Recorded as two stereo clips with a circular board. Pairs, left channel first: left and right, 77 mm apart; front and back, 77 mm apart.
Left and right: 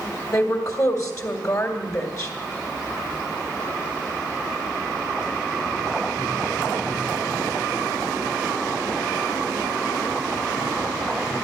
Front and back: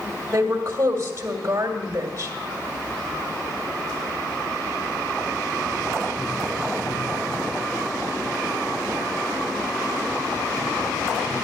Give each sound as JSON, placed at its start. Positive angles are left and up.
{"t": 0.3, "sound": "a woman speaking", "azimuth_deg": 130, "distance_m": 2.0}